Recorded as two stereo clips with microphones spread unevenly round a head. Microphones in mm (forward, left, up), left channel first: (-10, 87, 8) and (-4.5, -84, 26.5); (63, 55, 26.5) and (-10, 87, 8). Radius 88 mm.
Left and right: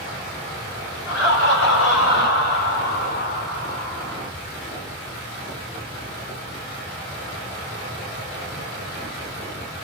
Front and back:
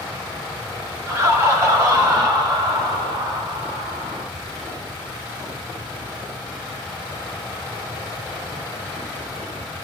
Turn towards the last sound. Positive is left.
turn(degrees=165)